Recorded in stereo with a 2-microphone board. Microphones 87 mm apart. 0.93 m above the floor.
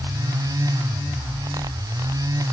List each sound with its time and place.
Only background noise.